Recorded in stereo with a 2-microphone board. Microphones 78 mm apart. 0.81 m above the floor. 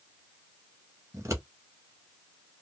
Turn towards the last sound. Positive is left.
turn(degrees=-35)  # may be behind; listen again after turning